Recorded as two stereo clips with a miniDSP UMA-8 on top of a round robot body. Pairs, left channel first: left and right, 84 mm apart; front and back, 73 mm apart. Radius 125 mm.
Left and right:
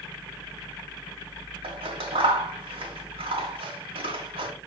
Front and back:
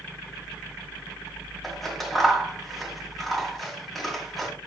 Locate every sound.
1.6 s scissors: 90° right, 2.5 m